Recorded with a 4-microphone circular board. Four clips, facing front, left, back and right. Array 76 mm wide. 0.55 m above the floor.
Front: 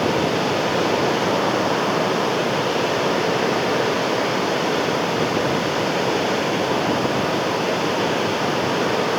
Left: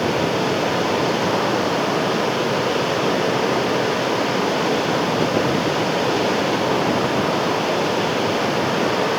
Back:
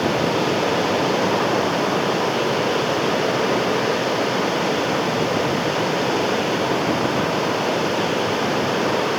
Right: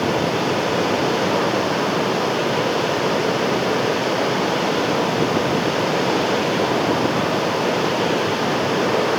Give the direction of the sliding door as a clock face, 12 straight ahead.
I don't hear a sliding door.